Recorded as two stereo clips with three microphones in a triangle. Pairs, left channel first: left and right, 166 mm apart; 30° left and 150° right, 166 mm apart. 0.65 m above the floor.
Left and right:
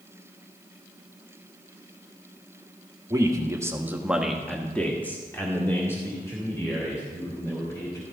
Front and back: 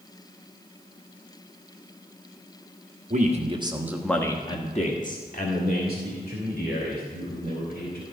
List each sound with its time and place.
3.1 s a man speaking: 150° right, 1.3 m; by 8.0 s 20° left, 4.5 m